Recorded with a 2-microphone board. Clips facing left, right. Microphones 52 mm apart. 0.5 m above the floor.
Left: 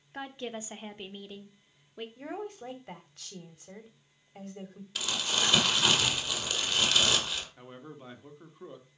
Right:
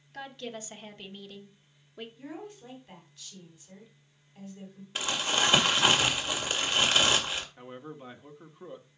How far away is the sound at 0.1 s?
About 1.3 m.